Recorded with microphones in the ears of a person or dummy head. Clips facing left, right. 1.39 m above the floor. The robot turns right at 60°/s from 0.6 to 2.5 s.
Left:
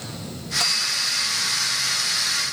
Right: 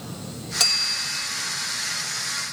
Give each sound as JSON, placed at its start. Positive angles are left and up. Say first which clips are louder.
{"t": 0.6, "sound": "a bell", "louder": "left 1 dB", "azimuth_deg": -25}